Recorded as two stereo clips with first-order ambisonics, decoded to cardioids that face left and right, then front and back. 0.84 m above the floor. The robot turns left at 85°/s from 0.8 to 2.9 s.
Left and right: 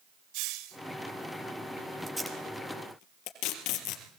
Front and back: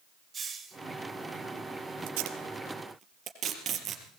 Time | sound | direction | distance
0.3 | a hiss | 110° right | 3 m
2.1 | tape being pulled | 170° right | 4 m